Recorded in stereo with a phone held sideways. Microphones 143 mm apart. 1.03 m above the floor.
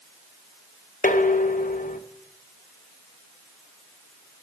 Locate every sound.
1.0 s dishes clattering: 70° left (ahead or behind), 0.7 m